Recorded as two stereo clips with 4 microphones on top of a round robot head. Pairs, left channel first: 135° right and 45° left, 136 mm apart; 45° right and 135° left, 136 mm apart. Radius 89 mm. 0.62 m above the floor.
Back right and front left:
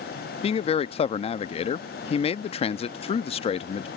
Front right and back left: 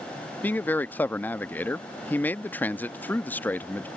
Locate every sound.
0.4 s a man speaking: 120° right